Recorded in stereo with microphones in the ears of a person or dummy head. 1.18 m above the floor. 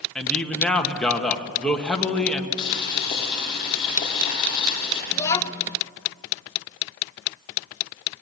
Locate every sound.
0.1 s a man speaking: 5° left (ahead or behind), 1.8 m
2.6 s boiling: 25° left (ahead or behind), 9.5 m
5.1 s a child speaking: 15° left (ahead or behind), 1.1 m